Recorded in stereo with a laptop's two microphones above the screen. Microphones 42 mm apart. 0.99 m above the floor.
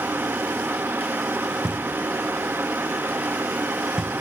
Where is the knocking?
20° right (ahead or behind), 4 m.